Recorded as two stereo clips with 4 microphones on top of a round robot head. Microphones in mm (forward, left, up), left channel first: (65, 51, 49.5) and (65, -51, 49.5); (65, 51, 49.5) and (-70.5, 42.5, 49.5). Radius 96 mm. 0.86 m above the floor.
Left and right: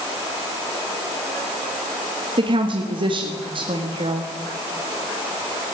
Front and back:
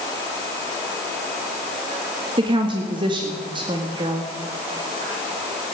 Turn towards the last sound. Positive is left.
turn(degrees=-125)